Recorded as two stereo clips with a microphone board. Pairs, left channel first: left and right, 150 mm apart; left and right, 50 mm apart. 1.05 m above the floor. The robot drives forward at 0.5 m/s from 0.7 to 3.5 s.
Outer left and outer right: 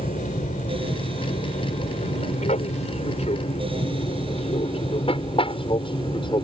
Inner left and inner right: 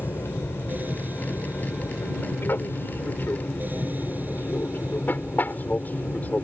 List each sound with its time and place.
0.0 s an aircraft: 55° left (ahead or behind); by 6.4 s 30° left (ahead or behind)